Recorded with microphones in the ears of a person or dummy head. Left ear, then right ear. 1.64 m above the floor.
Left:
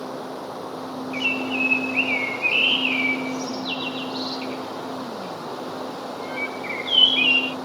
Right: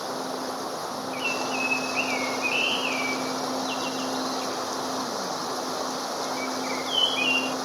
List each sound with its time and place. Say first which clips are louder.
0.0 s running water: right 1 dB; 75° right (ahead or behind)
1.1 s a bird: left 5 dB; 10° left (ahead or behind)